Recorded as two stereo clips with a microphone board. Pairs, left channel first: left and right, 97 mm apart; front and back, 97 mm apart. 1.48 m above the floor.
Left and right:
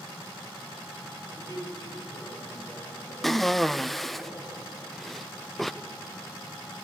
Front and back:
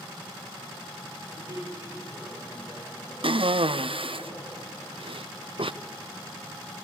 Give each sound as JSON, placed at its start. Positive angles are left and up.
{"t": 1.2, "sound": "a man speaking", "azimuth_deg": 135, "distance_m": 8.0}
{"t": 3.2, "sound": "a cough", "azimuth_deg": 180, "distance_m": 0.6}